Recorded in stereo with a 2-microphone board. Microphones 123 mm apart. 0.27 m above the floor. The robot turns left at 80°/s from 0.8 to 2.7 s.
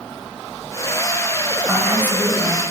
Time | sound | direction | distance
1.7 | a woman speaking | centre (ahead or behind) | 1.6 m